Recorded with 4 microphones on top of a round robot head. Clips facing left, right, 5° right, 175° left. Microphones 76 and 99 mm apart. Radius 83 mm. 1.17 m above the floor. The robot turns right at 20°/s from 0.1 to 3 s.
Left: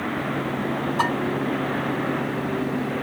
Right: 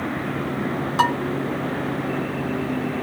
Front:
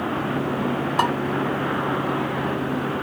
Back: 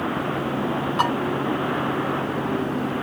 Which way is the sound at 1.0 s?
70° right.